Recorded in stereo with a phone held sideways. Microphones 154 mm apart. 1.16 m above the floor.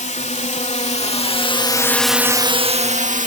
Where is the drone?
55° left (ahead or behind); by 3.3 s 55° right (ahead or behind).